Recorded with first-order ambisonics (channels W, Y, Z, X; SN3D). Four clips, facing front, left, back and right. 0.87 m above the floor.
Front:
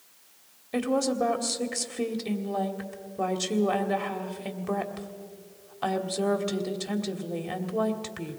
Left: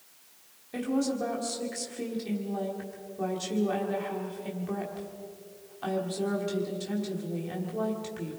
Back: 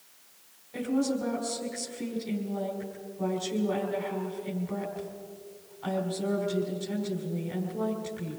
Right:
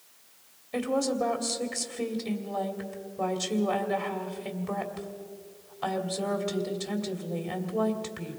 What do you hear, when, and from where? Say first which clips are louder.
0.7 s a woman speaking: right 2 dB, front 3 dB; 15° right, 2.5 m